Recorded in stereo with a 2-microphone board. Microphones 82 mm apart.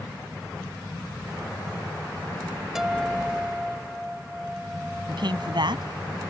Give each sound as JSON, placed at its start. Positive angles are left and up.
{"t": 2.8, "sound": "a guitar", "side_deg": -5}
{"t": 5.1, "sound": "a man speaking", "side_deg": -65}